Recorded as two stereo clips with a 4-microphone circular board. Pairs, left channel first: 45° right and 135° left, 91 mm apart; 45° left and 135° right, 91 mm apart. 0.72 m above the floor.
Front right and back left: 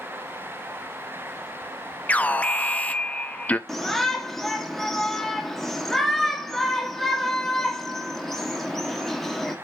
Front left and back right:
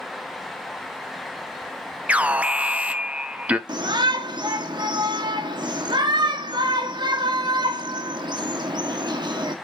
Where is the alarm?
90° right, 0.5 m.